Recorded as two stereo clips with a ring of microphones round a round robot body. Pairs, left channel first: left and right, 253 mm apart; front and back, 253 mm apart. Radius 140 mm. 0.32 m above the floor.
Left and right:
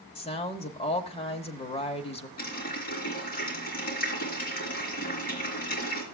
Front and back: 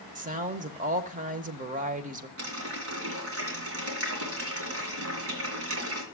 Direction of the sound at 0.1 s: 140° left.